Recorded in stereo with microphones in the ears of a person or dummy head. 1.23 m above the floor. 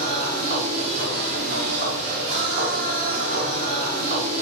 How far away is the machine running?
About 1.2 m.